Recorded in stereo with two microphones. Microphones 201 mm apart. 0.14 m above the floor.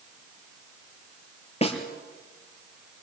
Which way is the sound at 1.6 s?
30° left (ahead or behind).